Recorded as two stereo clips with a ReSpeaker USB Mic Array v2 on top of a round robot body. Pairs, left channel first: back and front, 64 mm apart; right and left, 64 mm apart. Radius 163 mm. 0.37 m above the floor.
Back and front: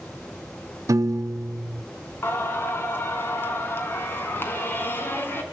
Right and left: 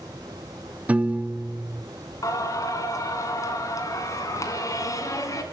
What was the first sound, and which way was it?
A piano, 25° left.